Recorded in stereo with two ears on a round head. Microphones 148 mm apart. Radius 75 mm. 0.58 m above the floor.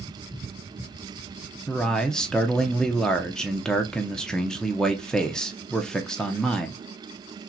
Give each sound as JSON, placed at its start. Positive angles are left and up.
{"t": 1.7, "sound": "a man speaking", "side_deg": 5, "distance_m": 0.7}